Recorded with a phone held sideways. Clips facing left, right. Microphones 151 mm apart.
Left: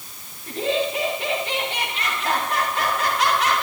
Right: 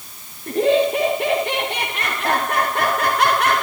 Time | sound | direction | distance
0.5 | laughter | 55° right (ahead or behind) | 2.5 m